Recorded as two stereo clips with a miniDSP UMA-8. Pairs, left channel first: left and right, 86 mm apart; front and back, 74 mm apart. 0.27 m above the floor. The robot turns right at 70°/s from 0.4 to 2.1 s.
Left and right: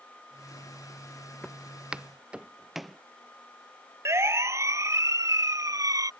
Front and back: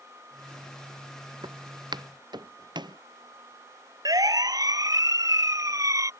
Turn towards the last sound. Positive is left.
turn(degrees=-140)